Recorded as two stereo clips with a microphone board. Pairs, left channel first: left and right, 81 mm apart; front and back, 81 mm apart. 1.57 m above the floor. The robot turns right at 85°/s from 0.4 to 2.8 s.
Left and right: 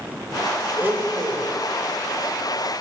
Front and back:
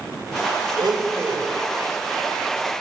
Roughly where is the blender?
Behind.